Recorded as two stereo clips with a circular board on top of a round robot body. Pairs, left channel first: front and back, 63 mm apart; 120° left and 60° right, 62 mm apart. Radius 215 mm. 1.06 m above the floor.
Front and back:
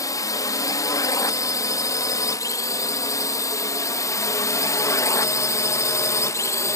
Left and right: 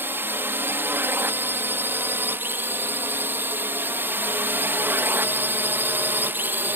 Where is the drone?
10° right.